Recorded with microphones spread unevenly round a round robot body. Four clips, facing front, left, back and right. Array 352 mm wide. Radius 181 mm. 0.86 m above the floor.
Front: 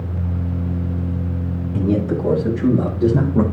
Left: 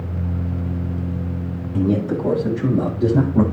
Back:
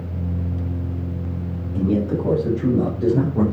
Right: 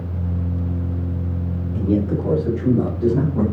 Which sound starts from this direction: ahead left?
A man speaking, at 1.7 s.